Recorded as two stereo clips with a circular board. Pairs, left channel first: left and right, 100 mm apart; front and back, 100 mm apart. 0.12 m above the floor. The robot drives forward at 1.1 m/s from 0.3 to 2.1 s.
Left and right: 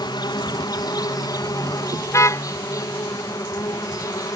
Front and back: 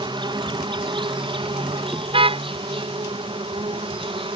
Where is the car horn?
150° left.